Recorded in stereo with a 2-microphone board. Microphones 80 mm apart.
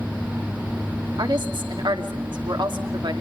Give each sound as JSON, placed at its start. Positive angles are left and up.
{"t": 1.2, "sound": "a woman speaking", "side_deg": -75, "distance_m": 2.5}